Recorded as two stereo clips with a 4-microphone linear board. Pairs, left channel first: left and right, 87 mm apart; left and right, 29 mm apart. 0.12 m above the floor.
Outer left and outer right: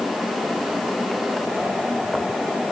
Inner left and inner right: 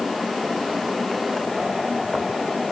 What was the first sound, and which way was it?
Only background noise.